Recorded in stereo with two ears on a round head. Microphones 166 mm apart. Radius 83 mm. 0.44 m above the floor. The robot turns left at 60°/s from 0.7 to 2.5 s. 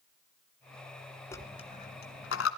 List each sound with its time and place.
1.3 s a dropped coin: 15° left (ahead or behind), 1.7 m; by 2.5 s 85° left, 1.7 m